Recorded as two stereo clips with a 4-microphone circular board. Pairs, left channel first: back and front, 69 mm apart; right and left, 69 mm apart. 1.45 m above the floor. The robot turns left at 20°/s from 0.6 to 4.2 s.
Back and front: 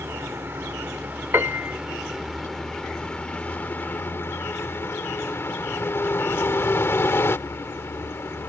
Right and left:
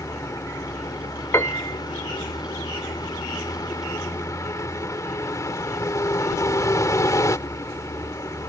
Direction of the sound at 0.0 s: 55° right.